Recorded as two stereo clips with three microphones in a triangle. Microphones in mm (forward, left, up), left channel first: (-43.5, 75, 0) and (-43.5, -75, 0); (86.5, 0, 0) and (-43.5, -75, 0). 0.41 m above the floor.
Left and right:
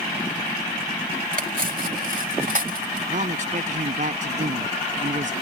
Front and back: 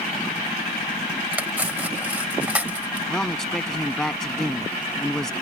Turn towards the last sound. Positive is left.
turn(degrees=-55)